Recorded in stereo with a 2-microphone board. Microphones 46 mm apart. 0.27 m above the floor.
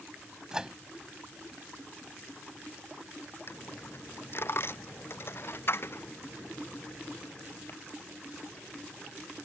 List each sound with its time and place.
0.5 s a microwave: 15° right (ahead or behind)
3.5 s a dropped coin: 50° left (ahead or behind)